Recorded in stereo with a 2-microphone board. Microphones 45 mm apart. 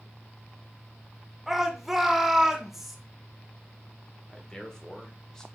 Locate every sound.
1.5 s a shout: 10° right (ahead or behind), 0.9 m
4.3 s a man speaking: 15° left (ahead or behind), 0.9 m